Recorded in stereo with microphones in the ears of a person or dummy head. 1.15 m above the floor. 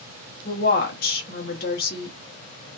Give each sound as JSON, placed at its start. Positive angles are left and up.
{"t": 0.5, "sound": "a woman speaking", "side_deg": 45, "distance_m": 0.7}